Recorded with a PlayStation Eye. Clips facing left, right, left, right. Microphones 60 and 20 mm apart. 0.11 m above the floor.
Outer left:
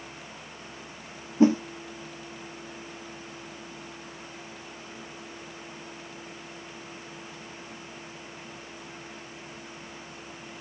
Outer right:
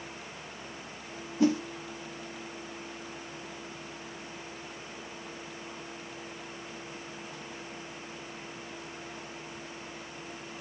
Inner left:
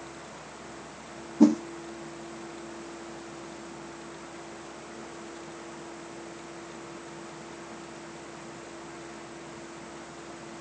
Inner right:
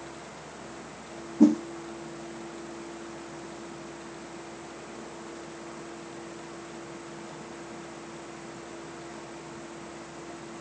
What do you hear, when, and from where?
1.4 s a whoosh: 30° left (ahead or behind), 1.0 m